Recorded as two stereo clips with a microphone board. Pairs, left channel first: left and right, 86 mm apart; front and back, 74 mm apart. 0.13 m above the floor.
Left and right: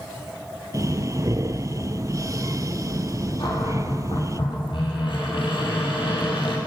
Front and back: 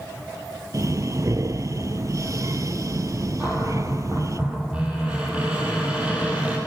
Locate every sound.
0.7 s breathing: 140° right, 0.5 m
3.4 s a cupboard door: 105° left, 4 m